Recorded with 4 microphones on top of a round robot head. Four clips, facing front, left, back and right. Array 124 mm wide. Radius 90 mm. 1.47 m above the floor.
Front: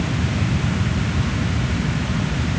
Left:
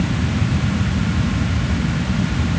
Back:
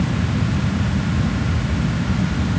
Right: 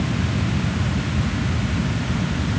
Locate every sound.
Only background noise.